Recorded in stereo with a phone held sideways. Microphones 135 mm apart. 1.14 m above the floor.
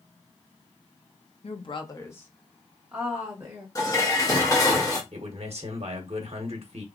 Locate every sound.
1.4 s a woman speaking: 55° left (ahead or behind), 0.6 m; by 3.6 s 20° right (ahead or behind), 1.3 m
3.8 s dishes clattering: 25° left (ahead or behind), 1.0 m
5.1 s a man speaking: 55° right (ahead or behind), 0.7 m